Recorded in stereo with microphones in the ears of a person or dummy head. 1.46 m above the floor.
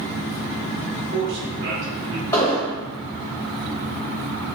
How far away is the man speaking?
About 1.2 m.